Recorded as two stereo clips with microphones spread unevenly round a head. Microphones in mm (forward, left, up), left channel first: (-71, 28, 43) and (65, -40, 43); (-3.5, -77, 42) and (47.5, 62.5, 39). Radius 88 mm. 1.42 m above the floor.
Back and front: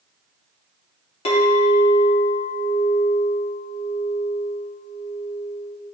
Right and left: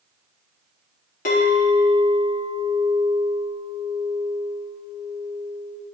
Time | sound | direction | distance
1.2 | a clink | 155° right | 2.5 m